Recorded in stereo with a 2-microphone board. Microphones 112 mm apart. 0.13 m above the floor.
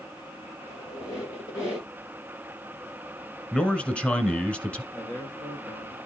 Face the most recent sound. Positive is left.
turn(degrees=20)  # may be behind; listen again after turning